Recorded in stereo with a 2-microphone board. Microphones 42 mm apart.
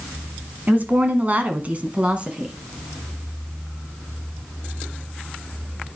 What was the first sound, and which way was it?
A woman speaking, 45° right (ahead or behind).